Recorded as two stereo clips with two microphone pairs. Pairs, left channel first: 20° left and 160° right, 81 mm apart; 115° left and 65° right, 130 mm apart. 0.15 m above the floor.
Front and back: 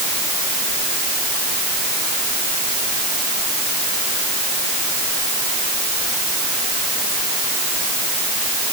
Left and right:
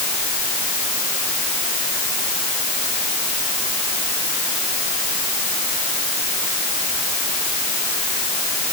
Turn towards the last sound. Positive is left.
No sound to turn to.